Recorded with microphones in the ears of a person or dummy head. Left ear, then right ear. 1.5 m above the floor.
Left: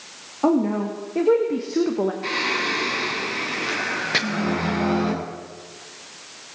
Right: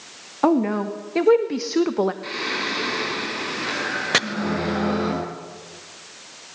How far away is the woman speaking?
About 2 m.